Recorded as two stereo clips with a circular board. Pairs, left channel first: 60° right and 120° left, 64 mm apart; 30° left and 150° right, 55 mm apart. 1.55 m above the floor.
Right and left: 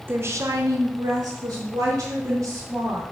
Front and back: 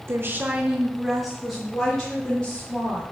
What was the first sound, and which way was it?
A woman speaking, 175° left.